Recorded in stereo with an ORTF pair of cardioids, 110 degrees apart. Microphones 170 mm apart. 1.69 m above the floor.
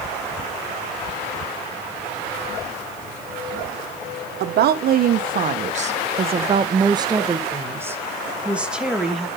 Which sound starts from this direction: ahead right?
A woman speaking, at 4.4 s.